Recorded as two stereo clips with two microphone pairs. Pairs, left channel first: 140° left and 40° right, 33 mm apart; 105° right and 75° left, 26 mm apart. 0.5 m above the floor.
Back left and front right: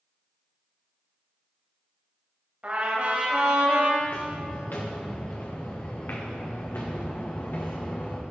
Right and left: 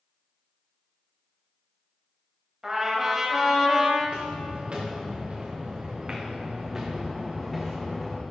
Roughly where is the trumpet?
Ahead.